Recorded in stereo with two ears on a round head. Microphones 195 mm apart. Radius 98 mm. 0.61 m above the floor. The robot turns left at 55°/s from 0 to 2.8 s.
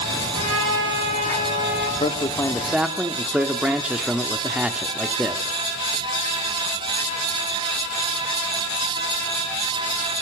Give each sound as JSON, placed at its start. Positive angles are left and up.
{"t": 0.3, "sound": "a trumpet", "azimuth_deg": -95, "distance_m": 5.5}
{"t": 2.0, "sound": "a man speaking", "azimuth_deg": 40, "distance_m": 1.4}